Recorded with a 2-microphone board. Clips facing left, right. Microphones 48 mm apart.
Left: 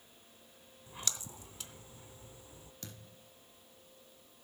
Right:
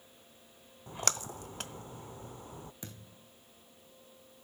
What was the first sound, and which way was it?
A splash, 55° right (ahead or behind).